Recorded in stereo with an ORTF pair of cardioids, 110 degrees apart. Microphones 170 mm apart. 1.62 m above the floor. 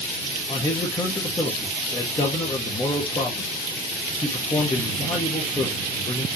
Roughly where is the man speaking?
Ahead.